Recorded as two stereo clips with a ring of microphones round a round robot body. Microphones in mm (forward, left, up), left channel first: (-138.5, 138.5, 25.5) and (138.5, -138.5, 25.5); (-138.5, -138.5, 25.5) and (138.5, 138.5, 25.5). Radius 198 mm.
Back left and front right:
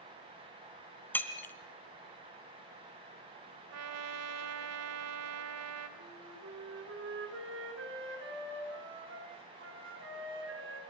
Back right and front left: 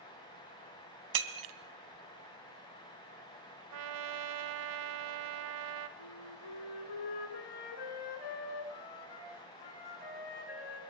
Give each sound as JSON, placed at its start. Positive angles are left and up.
{"t": 1.1, "sound": "breaking glass", "azimuth_deg": 50, "distance_m": 2.0}
{"t": 3.7, "sound": "a trumpet", "azimuth_deg": 5, "distance_m": 1.8}
{"t": 6.0, "sound": "a flute", "azimuth_deg": -105, "distance_m": 4.0}